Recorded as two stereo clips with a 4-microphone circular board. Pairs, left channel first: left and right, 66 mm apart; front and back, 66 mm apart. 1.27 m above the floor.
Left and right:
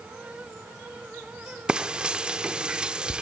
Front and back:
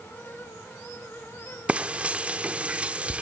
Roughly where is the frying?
Behind right.